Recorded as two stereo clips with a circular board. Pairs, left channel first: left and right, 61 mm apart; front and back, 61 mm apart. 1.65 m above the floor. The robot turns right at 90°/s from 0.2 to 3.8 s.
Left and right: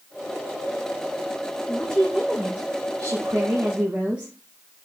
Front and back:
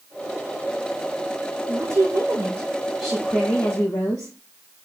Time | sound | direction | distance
1.7 | a woman speaking | 145° left | 1.9 m